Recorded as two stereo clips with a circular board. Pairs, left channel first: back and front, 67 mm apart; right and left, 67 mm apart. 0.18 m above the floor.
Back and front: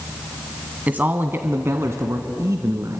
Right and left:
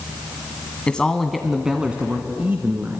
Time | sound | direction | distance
0.9 | a man speaking | 35° right | 1.3 m